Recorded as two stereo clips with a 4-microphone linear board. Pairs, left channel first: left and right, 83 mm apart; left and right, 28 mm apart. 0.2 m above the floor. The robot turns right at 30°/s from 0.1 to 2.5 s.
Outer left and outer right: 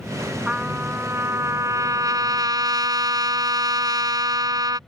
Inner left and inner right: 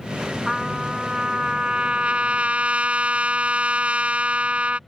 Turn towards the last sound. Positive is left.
turn(degrees=-100)